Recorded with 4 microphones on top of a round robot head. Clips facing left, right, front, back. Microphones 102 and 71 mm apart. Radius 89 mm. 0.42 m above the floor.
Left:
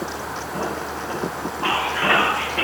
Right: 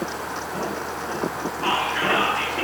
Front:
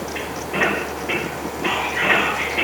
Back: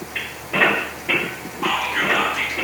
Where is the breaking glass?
No breaking glass in this recording.